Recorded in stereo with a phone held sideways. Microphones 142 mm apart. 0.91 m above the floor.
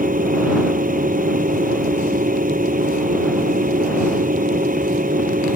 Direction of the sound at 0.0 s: 65° right (ahead or behind).